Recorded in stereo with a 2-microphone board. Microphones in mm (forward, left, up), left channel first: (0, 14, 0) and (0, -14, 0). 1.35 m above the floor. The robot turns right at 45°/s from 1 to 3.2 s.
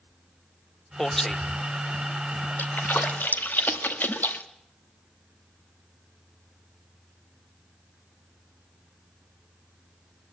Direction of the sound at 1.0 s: 25° left (ahead or behind).